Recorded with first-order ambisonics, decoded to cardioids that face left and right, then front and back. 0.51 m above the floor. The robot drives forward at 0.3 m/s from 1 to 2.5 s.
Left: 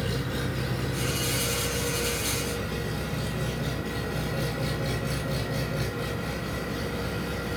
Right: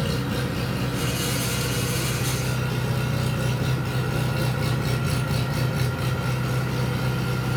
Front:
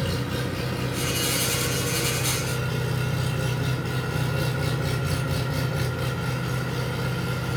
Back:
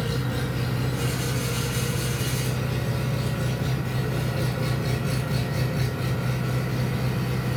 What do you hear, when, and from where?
0.0 s an engine running: 75° right, 4 m; by 7.6 s 80° right, 4 m